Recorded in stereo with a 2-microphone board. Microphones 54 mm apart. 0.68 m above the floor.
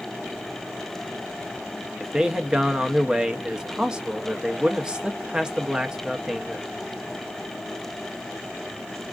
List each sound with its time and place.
2.0 s a man speaking: 15° right (ahead or behind), 0.5 m